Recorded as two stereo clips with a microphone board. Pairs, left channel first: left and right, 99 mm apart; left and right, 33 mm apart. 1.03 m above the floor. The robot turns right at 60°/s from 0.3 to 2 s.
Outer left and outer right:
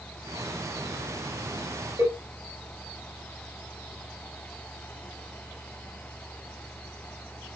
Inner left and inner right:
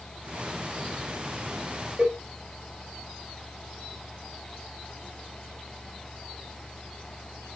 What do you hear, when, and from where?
2.0 s a cowbell: 30° right (ahead or behind), 4.5 m; by 2.2 s 35° right (ahead or behind), 4.5 m